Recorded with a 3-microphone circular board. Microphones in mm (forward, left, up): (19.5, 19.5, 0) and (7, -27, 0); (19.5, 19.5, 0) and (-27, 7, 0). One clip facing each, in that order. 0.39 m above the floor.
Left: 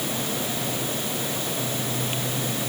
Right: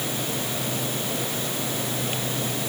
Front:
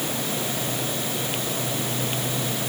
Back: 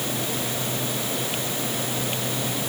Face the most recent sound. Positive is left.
No sound to turn to.